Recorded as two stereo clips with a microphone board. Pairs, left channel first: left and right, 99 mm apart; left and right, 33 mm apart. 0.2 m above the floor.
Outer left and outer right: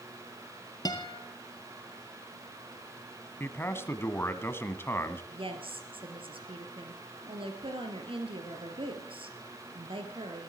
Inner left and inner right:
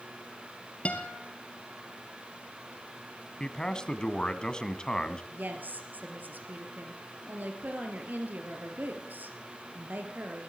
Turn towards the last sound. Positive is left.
turn(degrees=-65)  # may be behind; listen again after turning